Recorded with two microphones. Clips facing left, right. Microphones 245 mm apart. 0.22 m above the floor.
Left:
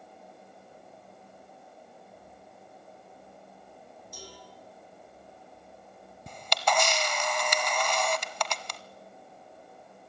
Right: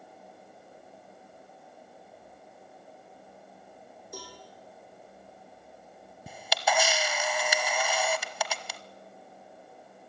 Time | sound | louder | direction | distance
4.1 | a cowbell | right 5 dB | 60° right (ahead or behind) | 6.5 m
6.3 | a camera shutter | even | 5° right (ahead or behind) | 0.8 m